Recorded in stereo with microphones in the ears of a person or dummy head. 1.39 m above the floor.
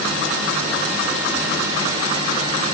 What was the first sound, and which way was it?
Only background noise.